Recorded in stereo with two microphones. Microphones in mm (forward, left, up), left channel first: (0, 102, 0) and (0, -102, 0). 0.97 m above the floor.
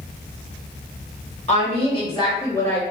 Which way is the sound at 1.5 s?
35° left (ahead or behind).